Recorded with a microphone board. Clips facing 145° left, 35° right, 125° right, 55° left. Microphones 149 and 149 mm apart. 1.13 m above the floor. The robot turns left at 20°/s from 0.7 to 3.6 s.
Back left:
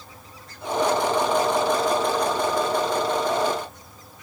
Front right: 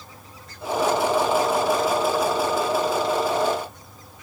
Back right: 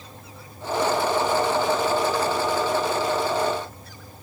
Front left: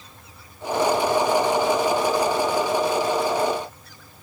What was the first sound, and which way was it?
Only background noise.